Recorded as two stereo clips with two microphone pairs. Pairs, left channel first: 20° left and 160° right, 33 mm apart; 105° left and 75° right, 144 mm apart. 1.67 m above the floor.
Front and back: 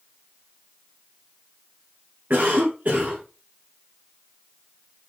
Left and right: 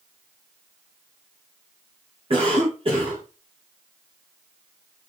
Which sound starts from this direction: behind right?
A cough, at 2.3 s.